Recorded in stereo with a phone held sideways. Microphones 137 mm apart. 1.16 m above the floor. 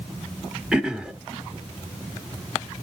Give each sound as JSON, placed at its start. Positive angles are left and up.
{"t": 0.7, "sound": "throat clearing", "side_deg": -5, "distance_m": 0.9}